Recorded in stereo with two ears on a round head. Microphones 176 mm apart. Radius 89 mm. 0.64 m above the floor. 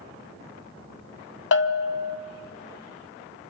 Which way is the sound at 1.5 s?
60° left (ahead or behind).